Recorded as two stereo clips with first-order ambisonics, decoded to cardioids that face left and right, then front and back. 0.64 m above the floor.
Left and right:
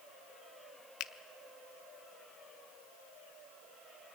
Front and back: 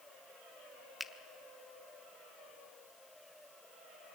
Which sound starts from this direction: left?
A finger snap, at 1.0 s.